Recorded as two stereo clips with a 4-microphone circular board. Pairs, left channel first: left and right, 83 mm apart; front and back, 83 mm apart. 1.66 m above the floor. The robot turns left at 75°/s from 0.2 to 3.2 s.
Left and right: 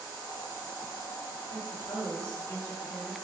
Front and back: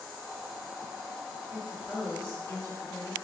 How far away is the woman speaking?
About 1.9 m.